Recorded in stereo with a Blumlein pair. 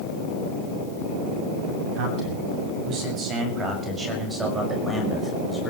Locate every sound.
1.9 s a man speaking: 40° right, 7.5 m; by 5.7 s 10° left, 5.5 m